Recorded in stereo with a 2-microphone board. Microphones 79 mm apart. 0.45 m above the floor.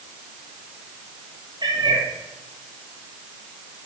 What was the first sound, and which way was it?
A cat meowing, 65° right (ahead or behind).